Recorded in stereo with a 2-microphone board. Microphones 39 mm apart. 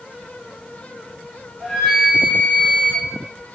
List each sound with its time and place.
1.6 s a flute: 15° left (ahead or behind), 2.5 m